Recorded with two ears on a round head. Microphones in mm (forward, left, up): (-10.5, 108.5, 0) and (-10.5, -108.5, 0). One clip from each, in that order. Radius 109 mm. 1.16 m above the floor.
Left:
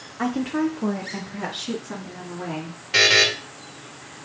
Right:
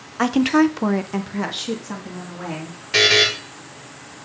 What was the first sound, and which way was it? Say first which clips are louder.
A woman speaking: right 8 dB; 35° right (ahead or behind).